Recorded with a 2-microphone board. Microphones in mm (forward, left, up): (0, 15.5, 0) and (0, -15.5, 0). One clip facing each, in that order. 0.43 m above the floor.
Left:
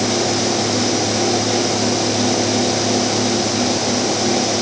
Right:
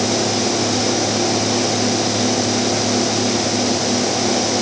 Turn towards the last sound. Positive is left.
No sound to turn to.